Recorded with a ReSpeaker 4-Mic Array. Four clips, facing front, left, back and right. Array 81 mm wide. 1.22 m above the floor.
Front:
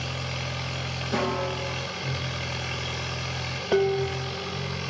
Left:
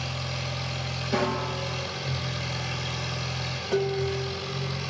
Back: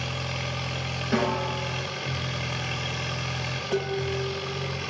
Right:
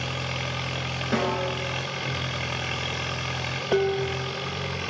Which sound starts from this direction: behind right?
A snare drum, at 1.1 s.